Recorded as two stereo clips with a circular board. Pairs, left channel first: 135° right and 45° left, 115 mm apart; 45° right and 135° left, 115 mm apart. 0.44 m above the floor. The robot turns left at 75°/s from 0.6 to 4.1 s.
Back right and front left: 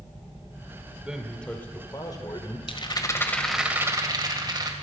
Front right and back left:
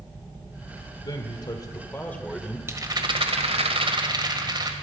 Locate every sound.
1.0 s a man speaking: 30° right, 1.7 m; by 2.6 s 145° right, 1.7 m
2.7 s a rattle: 160° right, 1.7 m; by 4.7 s 95° left, 1.7 m